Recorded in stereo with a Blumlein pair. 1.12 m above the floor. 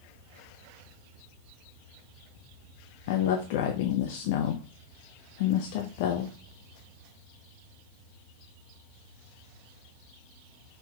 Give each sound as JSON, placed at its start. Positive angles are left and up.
{"t": 3.1, "sound": "a woman speaking", "azimuth_deg": 50, "distance_m": 0.6}